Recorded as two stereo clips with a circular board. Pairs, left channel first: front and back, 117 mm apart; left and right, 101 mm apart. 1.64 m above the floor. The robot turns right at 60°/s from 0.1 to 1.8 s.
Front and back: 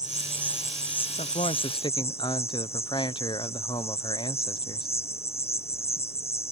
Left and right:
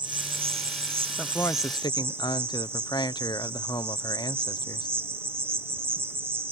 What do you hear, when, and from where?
0.0 s an insect: 125° right; by 6.5 s 25° right
1.2 s a man speaking: 10° left; by 4.9 s 45° left